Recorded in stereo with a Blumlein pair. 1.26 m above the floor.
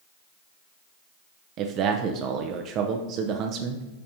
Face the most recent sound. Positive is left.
turn(degrees=-35)